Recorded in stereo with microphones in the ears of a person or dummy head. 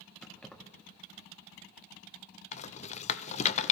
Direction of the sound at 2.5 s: 35° left (ahead or behind).